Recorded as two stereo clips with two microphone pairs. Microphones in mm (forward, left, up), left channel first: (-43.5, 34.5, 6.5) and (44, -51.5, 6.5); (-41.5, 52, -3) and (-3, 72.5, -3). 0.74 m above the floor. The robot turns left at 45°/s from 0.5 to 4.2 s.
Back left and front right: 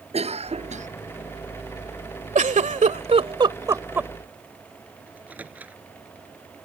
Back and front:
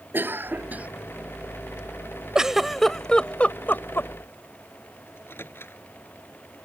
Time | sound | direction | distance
0.1 | a cough | 10° right | ?
2.4 | a giggle | 45° right | ?
5.1 | a microwave | 120° right | ?